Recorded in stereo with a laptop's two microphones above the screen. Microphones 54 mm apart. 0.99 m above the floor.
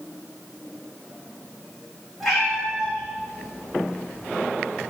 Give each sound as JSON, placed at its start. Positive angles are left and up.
{"t": 2.2, "sound": "a cat meowing", "side_deg": 5, "distance_m": 3.0}